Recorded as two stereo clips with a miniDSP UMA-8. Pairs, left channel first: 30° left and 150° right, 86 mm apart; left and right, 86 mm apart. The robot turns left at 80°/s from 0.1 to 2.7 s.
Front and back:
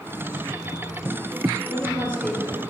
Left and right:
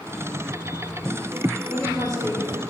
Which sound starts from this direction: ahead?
A woman speaking, at 1.7 s.